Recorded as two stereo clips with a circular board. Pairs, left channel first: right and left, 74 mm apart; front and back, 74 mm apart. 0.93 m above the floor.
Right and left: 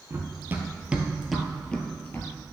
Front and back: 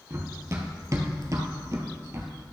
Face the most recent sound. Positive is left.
turn(degrees=-145)